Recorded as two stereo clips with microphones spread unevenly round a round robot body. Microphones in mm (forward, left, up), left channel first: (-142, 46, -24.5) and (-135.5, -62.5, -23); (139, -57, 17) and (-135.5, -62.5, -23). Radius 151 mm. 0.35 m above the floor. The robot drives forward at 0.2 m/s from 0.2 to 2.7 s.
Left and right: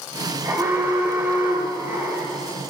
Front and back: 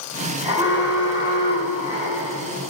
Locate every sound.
0.4 s an alarm: 130° right, 1.9 m; by 2.7 s 145° right, 2 m